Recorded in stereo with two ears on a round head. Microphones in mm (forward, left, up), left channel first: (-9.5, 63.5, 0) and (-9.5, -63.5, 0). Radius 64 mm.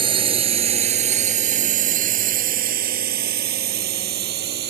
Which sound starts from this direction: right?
A drone, at 0.0 s.